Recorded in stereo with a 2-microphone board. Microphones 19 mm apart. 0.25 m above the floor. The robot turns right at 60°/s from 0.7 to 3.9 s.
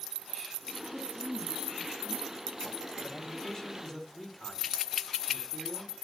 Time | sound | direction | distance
0.9 | a woman speaking | straight behind | 6 m
3.0 | a man speaking | 125° left | 2.5 m